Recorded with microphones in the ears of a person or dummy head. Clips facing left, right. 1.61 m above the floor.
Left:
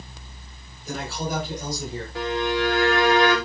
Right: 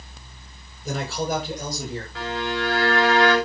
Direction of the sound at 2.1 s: 15° left (ahead or behind).